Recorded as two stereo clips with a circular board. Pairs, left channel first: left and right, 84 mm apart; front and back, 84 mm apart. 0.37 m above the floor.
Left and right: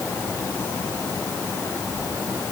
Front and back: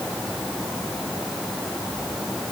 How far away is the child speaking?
No child speaking in this recording.